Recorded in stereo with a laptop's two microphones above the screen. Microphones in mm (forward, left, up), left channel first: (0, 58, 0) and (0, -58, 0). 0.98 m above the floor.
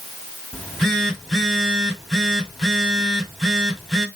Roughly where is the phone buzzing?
Centre.